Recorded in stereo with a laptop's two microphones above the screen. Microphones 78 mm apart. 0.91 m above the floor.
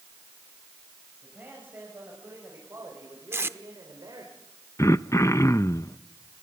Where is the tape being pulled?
35° right (ahead or behind), 0.7 m.